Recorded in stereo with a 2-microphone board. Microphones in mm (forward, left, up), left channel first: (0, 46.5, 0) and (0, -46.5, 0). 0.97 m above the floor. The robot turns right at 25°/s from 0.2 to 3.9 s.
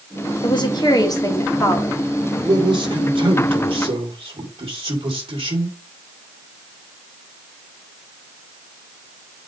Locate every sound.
0.4 s a woman speaking: 115° left, 1.6 m; by 2.0 s 155° left, 1.6 m
2.4 s a man speaking: 130° right, 3 m; by 5.8 s 90° right, 3 m